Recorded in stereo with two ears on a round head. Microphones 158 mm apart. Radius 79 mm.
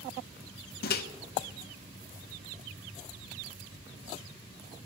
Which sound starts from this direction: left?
A microwave, at 0.8 s.